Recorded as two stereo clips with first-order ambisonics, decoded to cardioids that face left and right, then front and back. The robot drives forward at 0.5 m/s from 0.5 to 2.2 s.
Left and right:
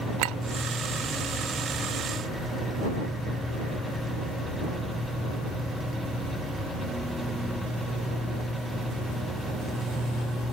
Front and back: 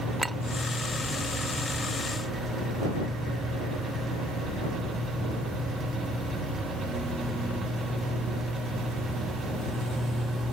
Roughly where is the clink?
Right.